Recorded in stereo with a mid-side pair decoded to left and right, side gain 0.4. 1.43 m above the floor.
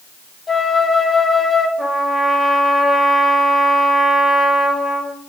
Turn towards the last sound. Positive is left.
turn(degrees=20)